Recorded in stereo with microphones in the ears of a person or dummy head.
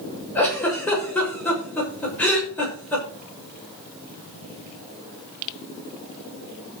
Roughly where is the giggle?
Centre.